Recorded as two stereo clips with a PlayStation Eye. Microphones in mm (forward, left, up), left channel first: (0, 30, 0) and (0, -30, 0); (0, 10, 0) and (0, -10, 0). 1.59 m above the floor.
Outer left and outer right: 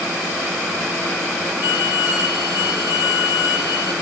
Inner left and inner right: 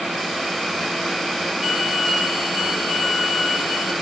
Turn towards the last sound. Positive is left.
turn(degrees=-20)  # may be behind; listen again after turning